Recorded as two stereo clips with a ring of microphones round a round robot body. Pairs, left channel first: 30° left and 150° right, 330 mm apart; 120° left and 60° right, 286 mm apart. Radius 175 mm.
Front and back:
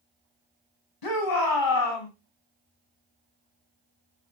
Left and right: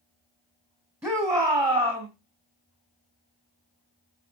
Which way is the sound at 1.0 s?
20° left.